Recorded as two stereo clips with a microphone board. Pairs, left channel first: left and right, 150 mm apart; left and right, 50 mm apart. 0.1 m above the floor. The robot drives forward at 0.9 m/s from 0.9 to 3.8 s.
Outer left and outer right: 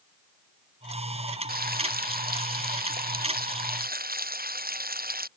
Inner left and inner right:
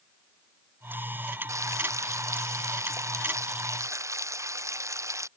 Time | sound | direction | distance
1.5 | frying | 85° right | ?